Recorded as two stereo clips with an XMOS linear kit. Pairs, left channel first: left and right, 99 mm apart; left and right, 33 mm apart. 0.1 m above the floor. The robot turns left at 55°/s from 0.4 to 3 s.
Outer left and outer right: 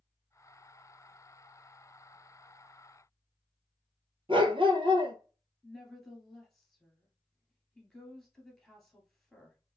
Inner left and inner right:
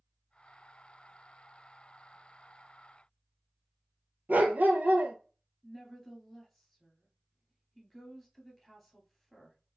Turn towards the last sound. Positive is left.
turn(degrees=5)  # may be behind; listen again after turning